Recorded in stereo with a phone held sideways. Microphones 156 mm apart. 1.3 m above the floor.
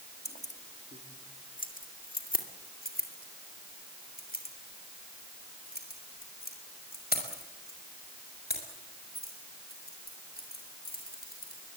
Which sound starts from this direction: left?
Keys jangling, at 0.2 s.